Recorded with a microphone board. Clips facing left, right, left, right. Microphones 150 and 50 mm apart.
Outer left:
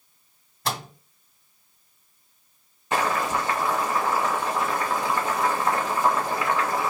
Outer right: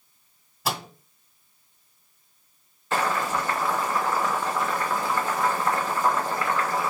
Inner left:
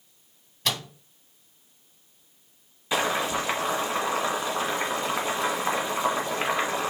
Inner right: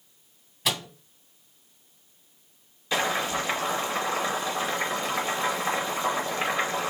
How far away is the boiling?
About 1.9 m.